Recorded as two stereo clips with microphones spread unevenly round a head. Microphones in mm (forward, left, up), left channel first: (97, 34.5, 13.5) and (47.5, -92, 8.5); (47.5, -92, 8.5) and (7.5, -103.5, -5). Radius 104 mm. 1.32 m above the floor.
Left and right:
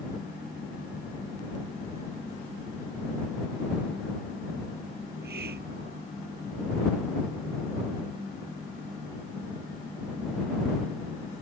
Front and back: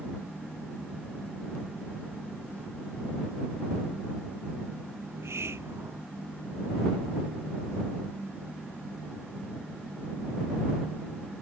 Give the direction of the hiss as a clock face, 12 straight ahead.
5 o'clock.